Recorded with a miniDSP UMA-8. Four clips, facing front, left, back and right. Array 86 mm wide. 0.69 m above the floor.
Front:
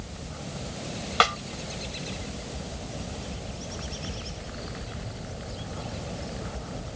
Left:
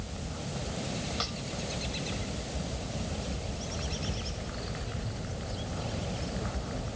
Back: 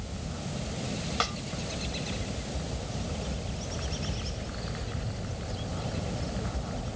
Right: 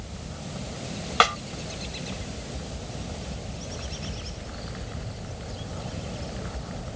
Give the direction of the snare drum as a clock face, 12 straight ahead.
2 o'clock.